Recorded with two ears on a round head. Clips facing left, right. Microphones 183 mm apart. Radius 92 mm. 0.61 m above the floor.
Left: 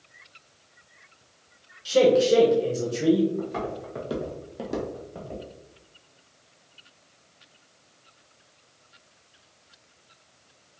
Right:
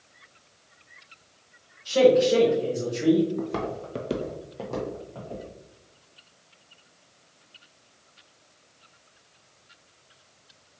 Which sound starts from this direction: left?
A man speaking, at 1.9 s.